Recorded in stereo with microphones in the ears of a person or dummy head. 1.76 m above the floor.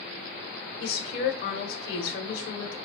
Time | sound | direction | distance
0.8 | a woman speaking | 60° left (ahead or behind) | 1.2 m